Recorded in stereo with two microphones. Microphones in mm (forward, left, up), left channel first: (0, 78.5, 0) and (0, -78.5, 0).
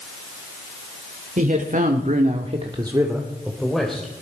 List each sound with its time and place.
1.4 s a man speaking: 55° right (ahead or behind), 2 m; by 4.1 s 5° left (ahead or behind), 2.5 m